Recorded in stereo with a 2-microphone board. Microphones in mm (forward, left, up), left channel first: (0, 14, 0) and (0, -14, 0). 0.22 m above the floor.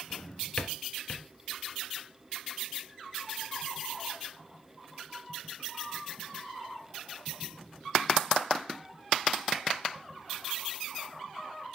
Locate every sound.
0.1 s a drawer: 40° left (ahead or behind), 1.5 m